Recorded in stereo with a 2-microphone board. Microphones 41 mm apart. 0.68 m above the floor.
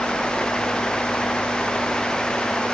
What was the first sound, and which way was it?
Only background noise.